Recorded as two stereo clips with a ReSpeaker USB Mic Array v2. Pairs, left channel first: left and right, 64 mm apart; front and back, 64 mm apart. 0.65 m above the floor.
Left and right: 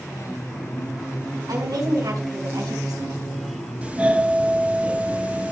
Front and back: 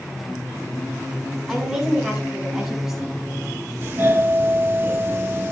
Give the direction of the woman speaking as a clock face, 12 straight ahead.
3 o'clock.